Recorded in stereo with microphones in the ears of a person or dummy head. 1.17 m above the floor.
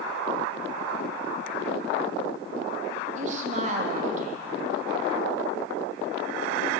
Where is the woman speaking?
40° right (ahead or behind), 1.6 m.